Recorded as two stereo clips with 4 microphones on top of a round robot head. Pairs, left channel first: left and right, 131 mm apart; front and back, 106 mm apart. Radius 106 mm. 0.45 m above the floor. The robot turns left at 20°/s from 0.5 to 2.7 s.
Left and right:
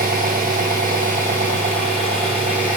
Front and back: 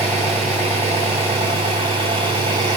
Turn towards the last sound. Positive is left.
turn(degrees=-140)